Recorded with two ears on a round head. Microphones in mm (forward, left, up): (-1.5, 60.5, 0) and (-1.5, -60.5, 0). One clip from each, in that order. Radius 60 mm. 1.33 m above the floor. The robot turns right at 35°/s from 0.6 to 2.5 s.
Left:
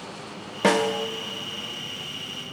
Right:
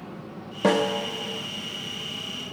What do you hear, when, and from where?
0.6 s a snare drum: 45° left (ahead or behind), 0.5 m